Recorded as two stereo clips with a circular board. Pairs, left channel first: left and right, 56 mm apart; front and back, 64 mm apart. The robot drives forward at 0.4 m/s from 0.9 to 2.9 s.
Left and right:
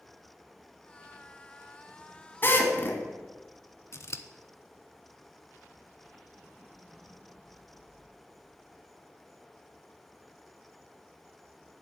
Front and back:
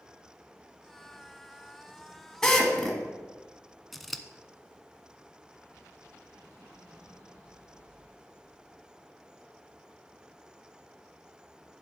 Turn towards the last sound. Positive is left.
turn(degrees=90)